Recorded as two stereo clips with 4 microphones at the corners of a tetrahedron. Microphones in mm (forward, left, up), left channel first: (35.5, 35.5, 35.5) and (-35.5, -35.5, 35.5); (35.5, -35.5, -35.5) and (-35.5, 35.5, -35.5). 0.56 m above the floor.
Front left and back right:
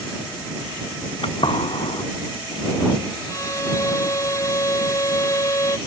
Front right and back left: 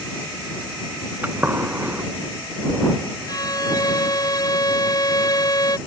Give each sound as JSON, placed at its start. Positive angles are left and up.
{"t": 1.2, "sound": "a gunshot", "azimuth_deg": 65}
{"t": 3.3, "sound": "a violin", "azimuth_deg": -5}